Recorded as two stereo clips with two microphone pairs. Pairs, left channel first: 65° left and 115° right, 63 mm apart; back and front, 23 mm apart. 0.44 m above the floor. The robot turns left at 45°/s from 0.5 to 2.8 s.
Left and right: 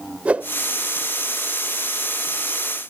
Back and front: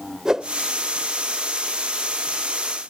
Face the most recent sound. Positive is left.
turn(degrees=-155)